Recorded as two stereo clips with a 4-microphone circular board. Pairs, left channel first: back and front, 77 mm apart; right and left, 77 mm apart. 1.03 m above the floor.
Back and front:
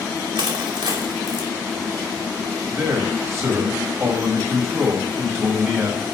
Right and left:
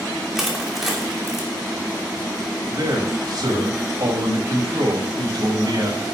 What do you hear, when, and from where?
0.3 s crushing: 5° left, 2.5 m
2.7 s a man speaking: 55° left, 5 m